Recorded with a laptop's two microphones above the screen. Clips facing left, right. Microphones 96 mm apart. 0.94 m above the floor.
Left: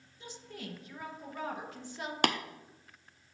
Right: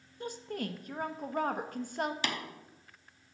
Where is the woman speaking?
55° right (ahead or behind), 0.7 m.